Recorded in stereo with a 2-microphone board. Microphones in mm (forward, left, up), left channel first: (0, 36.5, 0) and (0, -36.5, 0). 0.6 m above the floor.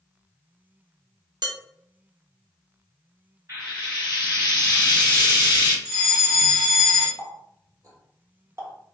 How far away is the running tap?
About 1.2 m.